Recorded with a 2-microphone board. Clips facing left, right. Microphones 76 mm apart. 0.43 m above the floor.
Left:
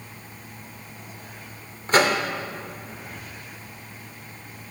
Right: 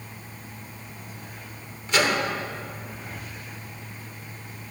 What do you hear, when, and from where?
1.9 s a microwave: 40° left (ahead or behind), 0.6 m